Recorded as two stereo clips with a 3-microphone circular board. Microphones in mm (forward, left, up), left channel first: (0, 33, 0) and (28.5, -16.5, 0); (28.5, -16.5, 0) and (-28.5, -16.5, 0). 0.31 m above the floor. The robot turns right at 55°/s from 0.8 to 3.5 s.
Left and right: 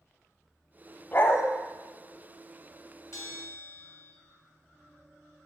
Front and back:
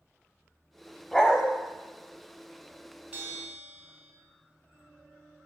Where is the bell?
120° left, 0.9 m; by 4.1 s 145° left, 0.9 m.